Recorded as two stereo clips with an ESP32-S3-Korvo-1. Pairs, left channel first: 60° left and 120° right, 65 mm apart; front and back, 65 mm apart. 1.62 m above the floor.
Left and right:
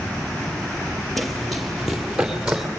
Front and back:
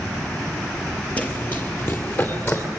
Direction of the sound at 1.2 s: 25° right.